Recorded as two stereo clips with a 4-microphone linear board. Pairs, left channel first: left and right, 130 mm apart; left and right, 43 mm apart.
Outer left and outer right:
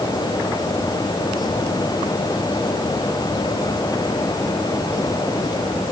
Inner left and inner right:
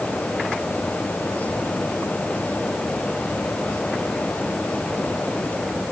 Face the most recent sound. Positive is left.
No sound to turn to.